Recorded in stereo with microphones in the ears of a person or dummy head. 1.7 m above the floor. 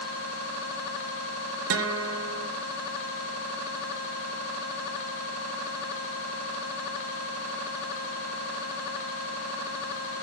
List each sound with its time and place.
1.7 s a guitar: 80° right, 0.9 m